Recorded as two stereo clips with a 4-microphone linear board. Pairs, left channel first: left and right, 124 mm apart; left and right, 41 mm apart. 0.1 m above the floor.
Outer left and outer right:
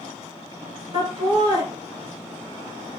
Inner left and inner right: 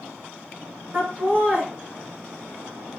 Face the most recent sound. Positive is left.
turn(degrees=-35)  # may be behind; listen again after turning